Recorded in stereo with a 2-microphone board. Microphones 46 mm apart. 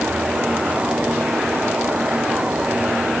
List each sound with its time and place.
Only background noise.